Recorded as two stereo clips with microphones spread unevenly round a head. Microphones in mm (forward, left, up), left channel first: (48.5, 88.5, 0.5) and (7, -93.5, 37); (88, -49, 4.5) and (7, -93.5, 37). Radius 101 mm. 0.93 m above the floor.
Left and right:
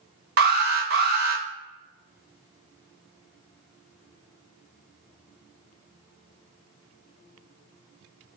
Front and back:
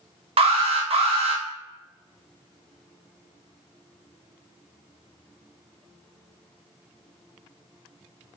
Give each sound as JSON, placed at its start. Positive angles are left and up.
{"t": 0.4, "sound": "an alarm", "azimuth_deg": -140, "distance_m": 0.8}